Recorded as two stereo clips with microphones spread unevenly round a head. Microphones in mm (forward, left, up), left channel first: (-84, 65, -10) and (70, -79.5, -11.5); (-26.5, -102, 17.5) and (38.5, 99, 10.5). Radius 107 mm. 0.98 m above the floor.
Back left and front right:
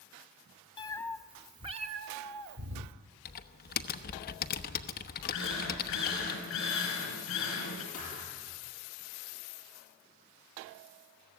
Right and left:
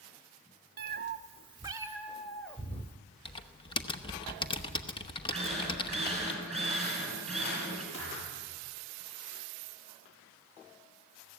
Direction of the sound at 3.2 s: 175° right.